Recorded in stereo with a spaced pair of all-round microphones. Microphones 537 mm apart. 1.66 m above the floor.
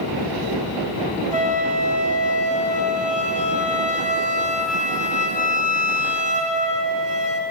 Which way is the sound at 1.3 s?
50° left (ahead or behind).